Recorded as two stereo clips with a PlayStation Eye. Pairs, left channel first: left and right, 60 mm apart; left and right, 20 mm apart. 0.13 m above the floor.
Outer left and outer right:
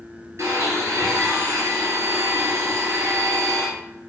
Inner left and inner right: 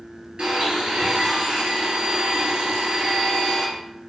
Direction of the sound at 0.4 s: 55° right (ahead or behind).